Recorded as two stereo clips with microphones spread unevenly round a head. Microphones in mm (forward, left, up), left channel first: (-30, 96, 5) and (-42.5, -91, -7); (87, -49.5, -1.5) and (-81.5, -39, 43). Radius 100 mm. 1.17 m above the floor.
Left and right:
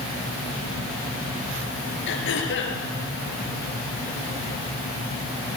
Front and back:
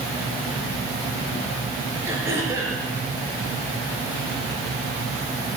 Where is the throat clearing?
100° left, 5 m.